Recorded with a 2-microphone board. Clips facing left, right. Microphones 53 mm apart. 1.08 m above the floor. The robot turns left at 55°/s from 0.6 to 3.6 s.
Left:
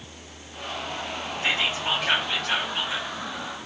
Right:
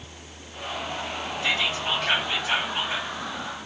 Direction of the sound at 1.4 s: 45° left.